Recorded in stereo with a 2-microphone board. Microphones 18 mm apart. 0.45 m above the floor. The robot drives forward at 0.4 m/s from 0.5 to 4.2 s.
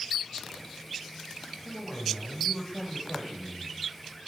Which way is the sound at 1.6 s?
20° left (ahead or behind).